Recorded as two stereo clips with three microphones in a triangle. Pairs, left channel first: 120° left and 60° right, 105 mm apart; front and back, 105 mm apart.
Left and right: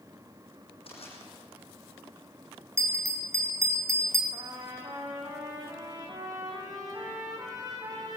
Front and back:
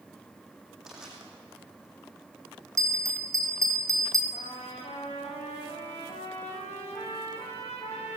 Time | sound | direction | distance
0.9 | crushing | 90° left | 6 m
2.8 | a bell | 120° right | 2 m
4.3 | a trumpet | 5° right | 4 m